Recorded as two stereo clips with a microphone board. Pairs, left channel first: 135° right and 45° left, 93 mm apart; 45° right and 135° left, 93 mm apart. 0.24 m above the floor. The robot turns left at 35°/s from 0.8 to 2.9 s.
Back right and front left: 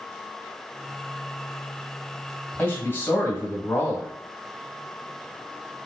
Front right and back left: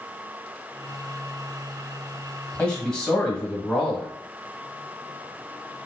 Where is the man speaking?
110° right, 1.2 m; by 4.1 s 125° right, 1.2 m.